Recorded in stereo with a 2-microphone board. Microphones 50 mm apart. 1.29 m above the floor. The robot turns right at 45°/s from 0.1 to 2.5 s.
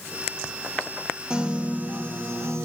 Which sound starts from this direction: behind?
A piano, at 1.3 s.